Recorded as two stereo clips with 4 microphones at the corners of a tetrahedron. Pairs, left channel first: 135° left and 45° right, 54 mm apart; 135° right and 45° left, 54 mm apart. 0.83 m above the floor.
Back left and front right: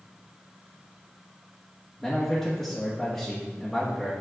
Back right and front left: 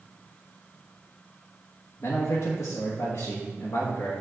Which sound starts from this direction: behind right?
A man speaking, at 2.0 s.